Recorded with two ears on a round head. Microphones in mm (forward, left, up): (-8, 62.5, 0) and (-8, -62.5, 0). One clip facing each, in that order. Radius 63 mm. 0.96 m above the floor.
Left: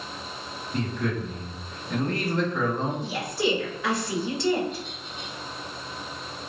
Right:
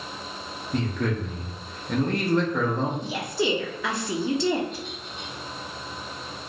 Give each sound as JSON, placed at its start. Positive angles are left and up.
{"t": 0.7, "sound": "a man speaking", "side_deg": -50, "distance_m": 1.7}
{"t": 3.0, "sound": "a woman speaking", "side_deg": -75, "distance_m": 1.9}